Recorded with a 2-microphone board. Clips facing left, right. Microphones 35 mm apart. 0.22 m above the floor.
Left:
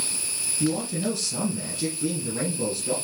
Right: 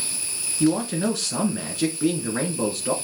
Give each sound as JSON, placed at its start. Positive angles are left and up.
{"t": 0.6, "sound": "a man speaking", "side_deg": -60, "distance_m": 2.5}